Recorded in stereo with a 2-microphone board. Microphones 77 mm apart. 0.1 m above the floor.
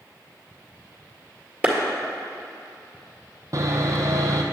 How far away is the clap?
About 1.8 m.